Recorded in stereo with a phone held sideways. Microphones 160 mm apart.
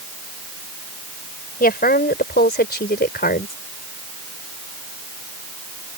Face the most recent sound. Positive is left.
turn(degrees=70)  # may be behind; listen again after turning